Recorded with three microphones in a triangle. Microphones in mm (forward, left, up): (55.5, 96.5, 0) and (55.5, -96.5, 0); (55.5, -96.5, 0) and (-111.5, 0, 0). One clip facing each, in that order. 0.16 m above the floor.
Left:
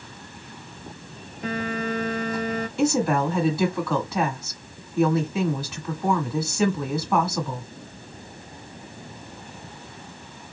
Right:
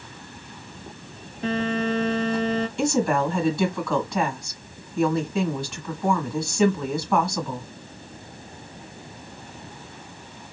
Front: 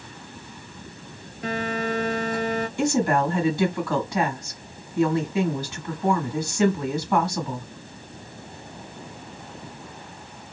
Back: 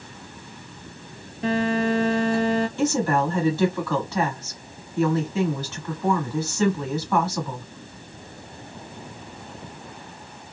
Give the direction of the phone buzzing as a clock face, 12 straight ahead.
5 o'clock.